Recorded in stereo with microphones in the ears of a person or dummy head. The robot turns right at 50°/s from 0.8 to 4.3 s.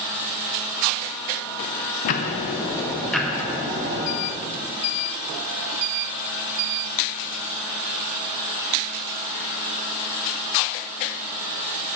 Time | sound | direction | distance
2.0 | ticking | 125° left | 0.6 m